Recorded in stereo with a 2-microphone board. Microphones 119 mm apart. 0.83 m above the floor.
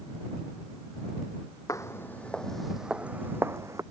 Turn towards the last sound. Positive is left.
turn(degrees=-25)  # may be behind; listen again after turning